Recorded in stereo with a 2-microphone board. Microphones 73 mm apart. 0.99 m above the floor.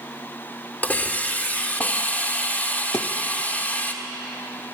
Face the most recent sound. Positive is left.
turn(degrees=40)  # may be behind; listen again after turning